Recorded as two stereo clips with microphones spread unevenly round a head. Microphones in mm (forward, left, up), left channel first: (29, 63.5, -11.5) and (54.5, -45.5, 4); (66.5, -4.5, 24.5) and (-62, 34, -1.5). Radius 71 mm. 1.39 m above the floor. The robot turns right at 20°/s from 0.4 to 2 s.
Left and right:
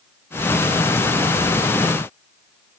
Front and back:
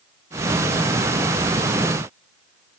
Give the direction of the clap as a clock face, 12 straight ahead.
No clap in this recording.